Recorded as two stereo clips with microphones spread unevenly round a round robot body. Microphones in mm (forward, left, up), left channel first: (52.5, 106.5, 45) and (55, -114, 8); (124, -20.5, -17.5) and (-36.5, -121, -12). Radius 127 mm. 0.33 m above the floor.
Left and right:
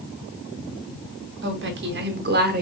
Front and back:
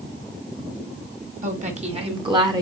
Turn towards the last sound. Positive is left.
turn(degrees=-80)